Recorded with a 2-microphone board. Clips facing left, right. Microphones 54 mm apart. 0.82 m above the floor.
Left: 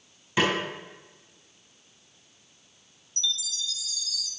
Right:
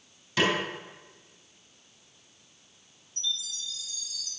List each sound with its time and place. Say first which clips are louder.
0.4 s a snare drum: left 1 dB; 15° left (ahead or behind), 4 m
3.2 s a chime: left 3 dB; 90° left, 0.6 m